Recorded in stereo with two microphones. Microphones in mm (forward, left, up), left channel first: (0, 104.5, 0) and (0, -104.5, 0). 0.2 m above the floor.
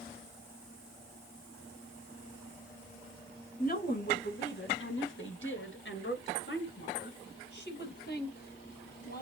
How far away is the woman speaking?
About 2.5 m.